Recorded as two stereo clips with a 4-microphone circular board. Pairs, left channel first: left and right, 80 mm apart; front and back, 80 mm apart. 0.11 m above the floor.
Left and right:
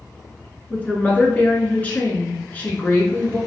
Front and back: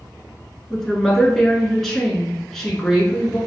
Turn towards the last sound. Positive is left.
turn(degrees=75)